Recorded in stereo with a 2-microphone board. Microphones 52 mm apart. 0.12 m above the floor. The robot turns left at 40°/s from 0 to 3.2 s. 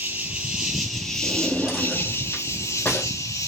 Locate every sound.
0.0 s an insect: 140° right, 3 m; by 3.5 s 90° left, 3 m
1.2 s a drawer: 30° right (ahead or behind), 3.5 m; by 3.1 s 40° left (ahead or behind), 3.5 m